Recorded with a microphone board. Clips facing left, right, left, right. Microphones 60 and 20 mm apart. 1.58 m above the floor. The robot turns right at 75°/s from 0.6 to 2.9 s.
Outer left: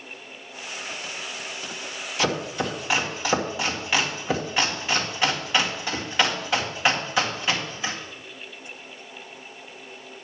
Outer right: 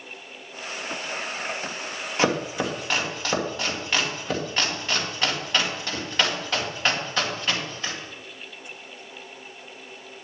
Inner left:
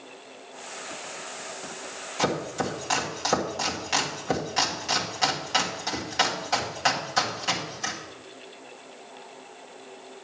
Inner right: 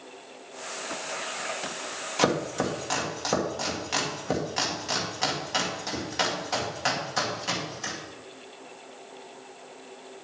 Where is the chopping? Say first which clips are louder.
Outer right 2 dB, inner right 2 dB; 40° right (ahead or behind), 1.9 m; by 7.9 s 10° left (ahead or behind), 1.9 m.